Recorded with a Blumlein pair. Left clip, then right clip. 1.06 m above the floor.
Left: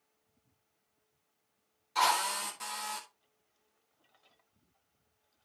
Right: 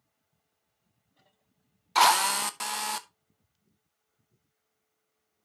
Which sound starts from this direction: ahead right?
A drill, at 1.9 s.